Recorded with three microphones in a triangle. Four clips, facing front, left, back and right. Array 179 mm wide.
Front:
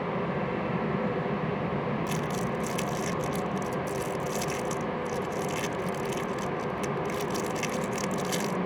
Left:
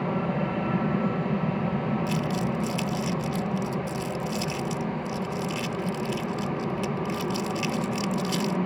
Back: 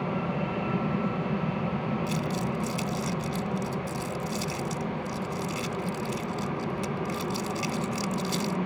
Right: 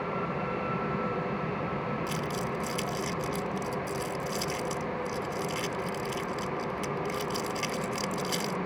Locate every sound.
0.0 s an aircraft: 100° left
2.1 s crumpling: 45° left